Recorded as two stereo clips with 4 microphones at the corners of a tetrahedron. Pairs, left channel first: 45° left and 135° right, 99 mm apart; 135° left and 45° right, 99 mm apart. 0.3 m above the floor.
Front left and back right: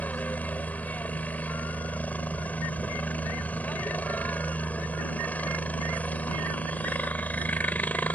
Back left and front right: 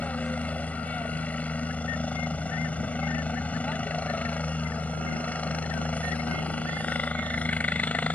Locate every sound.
0.0 s a helicopter: 90° left